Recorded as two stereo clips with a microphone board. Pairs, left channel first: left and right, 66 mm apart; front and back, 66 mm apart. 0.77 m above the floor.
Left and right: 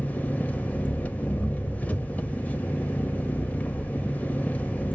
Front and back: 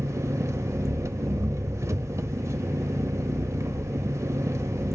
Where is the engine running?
150° left, 0.7 m.